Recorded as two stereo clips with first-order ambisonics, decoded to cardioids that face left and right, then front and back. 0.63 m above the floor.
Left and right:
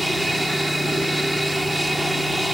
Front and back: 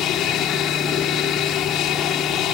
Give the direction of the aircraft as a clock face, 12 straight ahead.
12 o'clock.